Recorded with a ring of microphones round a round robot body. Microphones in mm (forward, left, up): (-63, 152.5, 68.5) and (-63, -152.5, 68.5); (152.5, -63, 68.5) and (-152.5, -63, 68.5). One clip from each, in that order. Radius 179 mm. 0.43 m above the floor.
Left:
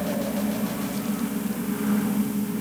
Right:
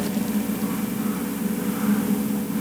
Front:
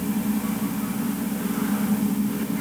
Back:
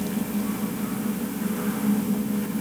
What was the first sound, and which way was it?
Only background noise.